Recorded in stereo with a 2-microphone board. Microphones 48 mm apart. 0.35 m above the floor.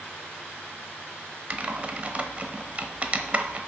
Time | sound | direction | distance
1.5 | typing on a keyboard | 30° right (ahead or behind) | 0.9 m